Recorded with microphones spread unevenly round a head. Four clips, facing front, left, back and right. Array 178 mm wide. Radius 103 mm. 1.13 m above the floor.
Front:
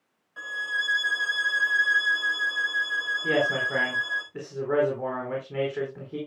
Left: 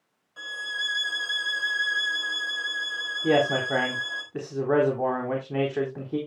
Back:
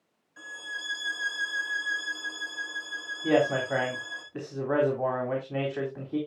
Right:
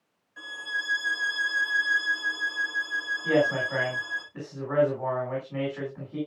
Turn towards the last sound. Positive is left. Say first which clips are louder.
# left 2 dB, back 2 dB
turn(degrees=85)